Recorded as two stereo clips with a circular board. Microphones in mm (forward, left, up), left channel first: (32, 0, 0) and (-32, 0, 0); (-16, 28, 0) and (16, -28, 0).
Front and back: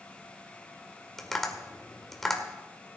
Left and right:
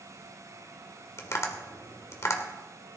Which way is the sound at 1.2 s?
85° left.